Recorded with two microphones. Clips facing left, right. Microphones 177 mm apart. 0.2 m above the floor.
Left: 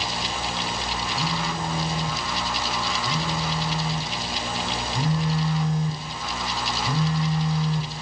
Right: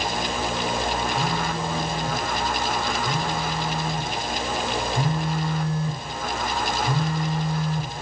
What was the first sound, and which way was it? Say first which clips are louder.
A phone buzzing: right 2 dB; 20° left (ahead or behind).